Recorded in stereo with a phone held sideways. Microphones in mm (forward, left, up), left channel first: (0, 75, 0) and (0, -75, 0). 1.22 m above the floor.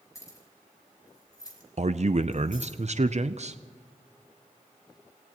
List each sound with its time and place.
0.1 s keys jangling: 20° left (ahead or behind), 4 m; by 2.7 s 35° left (ahead or behind), 3 m
1.8 s a man speaking: 50° right (ahead or behind), 0.6 m